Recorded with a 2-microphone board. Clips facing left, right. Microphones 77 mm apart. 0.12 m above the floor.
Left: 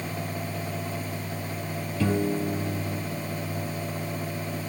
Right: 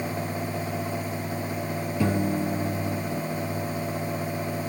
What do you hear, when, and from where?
2.0 s a piano: 15° right (ahead or behind), 3.5 m